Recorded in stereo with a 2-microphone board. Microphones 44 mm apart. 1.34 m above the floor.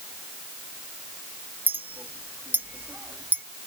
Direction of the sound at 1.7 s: 45° right (ahead or behind).